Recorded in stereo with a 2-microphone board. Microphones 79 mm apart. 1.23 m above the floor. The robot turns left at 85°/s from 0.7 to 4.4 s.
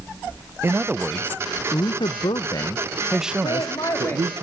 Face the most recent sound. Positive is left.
turn(degrees=0)